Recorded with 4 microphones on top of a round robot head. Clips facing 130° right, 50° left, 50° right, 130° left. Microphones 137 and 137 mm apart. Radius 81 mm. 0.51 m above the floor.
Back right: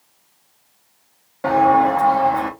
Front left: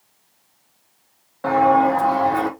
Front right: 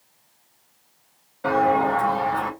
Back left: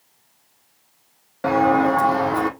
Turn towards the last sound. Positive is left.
turn(degrees=110)